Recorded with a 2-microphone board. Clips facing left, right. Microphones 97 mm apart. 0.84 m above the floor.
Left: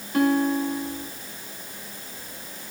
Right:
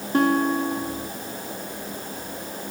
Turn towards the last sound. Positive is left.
turn(degrees=-30)  # may be behind; listen again after turning